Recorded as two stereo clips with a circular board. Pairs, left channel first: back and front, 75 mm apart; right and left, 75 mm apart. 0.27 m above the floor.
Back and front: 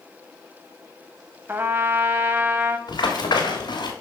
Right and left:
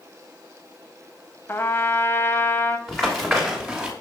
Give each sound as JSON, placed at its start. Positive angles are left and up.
{"t": 1.5, "sound": "a trumpet", "azimuth_deg": -45, "distance_m": 0.6}
{"t": 2.9, "sound": "running footsteps", "azimuth_deg": -175, "distance_m": 3.0}